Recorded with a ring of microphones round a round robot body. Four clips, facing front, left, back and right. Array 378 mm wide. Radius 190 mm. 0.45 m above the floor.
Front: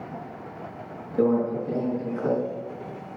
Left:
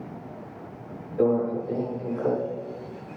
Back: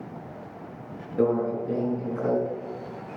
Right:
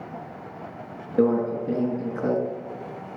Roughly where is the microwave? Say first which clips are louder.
Right 1 dB, front 1 dB; right.